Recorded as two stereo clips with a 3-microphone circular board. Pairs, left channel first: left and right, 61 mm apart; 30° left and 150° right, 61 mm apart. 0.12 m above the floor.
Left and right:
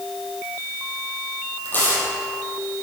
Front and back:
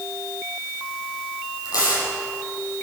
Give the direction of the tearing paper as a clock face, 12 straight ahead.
11 o'clock.